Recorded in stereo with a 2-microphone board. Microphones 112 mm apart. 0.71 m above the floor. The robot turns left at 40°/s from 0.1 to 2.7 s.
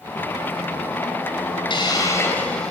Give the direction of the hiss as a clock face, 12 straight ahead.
11 o'clock.